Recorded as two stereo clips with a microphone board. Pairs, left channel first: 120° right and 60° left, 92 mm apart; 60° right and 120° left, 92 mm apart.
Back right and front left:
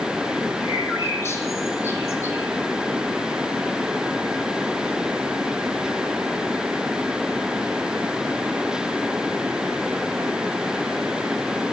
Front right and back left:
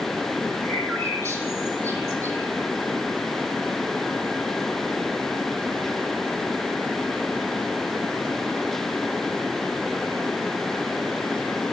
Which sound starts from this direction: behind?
A bird, at 0.6 s.